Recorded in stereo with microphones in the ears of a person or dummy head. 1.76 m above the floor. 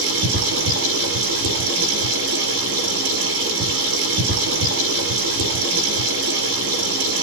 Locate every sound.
0.0 s running water: 80° right, 8 m